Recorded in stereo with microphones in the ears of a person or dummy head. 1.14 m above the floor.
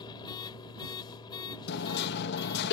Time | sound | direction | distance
0.0 | a machine running | 35° left (ahead or behind) | ?
1.7 | hammering | 70° left (ahead or behind) | ?